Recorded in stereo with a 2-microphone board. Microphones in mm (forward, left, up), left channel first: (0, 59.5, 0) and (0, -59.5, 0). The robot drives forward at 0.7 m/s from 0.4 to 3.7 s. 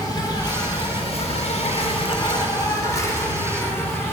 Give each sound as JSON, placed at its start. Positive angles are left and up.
{"t": 0.0, "sound": "an insect", "side_deg": 35, "distance_m": 1.0}